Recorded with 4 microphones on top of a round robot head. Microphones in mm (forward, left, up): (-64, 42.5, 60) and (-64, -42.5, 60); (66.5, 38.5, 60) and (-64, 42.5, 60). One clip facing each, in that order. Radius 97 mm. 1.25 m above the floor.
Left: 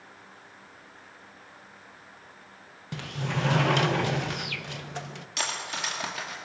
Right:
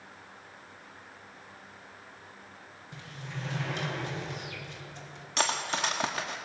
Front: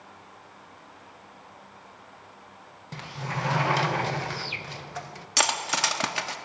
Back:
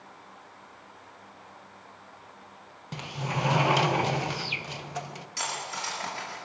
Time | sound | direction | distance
2.9 | a sliding door | 105° left | 1.0 m
5.4 | cutlery clinking | 25° right | 1.6 m